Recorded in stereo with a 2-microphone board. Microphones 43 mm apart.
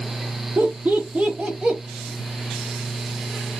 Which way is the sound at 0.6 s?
50° right (ahead or behind).